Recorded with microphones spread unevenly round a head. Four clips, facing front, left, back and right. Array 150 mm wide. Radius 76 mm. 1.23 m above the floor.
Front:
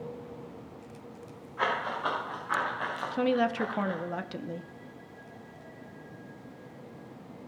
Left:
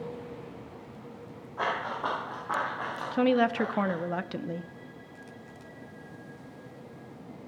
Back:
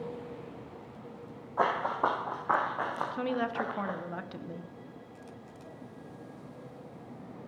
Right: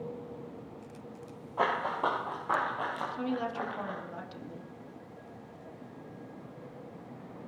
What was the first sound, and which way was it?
Running footsteps, 155° right.